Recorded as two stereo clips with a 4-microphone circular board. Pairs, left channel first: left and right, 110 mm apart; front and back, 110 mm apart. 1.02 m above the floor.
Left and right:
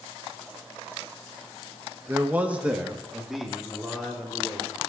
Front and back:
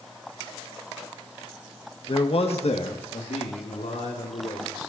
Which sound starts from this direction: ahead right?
A man speaking, at 2.1 s.